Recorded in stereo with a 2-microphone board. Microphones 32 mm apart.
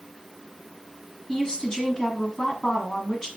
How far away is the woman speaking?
About 1.6 m.